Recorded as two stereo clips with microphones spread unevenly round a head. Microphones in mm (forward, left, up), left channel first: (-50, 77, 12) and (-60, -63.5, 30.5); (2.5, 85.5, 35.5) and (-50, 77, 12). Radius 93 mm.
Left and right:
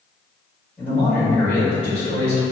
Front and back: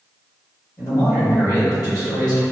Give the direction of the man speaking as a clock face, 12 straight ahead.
12 o'clock.